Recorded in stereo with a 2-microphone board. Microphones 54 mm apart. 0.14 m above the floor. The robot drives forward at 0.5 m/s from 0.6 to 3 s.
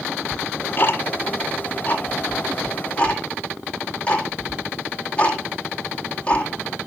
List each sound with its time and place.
0.3 s ticking: 45° left (ahead or behind), 1.2 m; by 6.5 s 25° left (ahead or behind), 2 m